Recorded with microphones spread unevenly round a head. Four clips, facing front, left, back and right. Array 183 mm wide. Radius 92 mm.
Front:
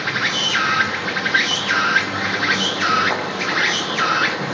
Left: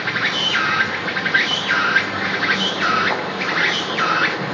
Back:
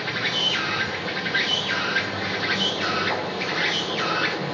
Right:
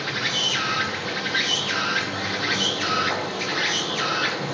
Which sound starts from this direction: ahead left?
An insect, at 0.0 s.